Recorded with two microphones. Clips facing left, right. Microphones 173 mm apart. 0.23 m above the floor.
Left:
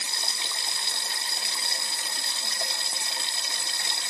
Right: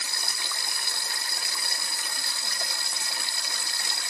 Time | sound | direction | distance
0.0 | running water | 20° left (ahead or behind) | ?